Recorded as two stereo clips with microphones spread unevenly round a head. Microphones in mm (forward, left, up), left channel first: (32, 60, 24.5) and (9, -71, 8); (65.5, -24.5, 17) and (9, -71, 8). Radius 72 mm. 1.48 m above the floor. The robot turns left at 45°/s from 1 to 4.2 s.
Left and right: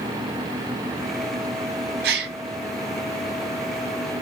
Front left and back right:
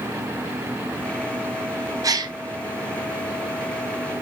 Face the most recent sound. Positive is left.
turn(degrees=165)